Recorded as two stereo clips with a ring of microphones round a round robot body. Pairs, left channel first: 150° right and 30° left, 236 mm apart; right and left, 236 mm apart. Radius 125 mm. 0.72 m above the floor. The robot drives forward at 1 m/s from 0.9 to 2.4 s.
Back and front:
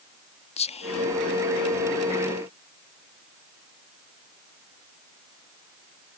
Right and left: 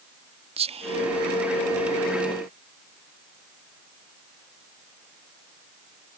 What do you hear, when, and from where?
0.6 s whispering: 150° left; by 1.5 s 160° left